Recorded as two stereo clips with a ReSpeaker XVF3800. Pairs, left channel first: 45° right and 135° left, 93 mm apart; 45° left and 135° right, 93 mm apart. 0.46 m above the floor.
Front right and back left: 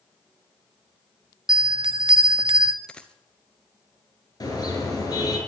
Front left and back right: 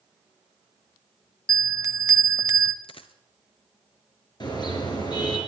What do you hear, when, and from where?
1.5 s a bell: 170° left, 0.7 m
2.8 s a dropped coin: 35° left, 1.0 m
4.4 s a car horn: 5° left, 4.5 m